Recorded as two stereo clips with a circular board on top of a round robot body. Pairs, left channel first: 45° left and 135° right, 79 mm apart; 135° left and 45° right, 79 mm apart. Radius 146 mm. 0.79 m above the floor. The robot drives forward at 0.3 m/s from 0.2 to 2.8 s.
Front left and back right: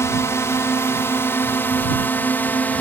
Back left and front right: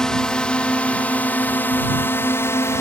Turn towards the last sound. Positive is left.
turn(degrees=105)